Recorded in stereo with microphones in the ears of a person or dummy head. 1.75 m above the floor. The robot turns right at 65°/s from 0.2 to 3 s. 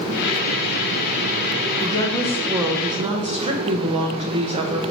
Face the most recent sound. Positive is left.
turn(degrees=-145)